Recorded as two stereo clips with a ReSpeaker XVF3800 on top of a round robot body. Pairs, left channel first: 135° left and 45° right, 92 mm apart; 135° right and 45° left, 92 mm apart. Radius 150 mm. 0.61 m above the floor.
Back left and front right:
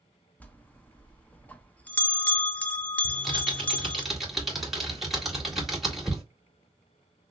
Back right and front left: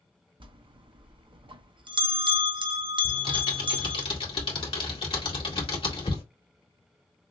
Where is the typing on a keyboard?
135° right, 1.9 m.